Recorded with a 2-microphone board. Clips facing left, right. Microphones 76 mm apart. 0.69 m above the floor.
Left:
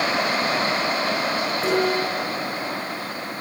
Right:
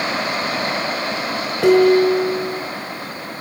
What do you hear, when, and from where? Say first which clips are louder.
1.6 s dishes clattering: right 12 dB; 70° right (ahead or behind), 8.5 m